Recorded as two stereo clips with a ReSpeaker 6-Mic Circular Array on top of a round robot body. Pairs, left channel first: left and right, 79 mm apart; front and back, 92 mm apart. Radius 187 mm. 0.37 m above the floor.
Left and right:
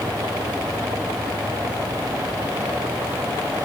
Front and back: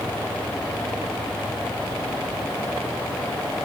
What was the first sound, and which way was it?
Only background noise.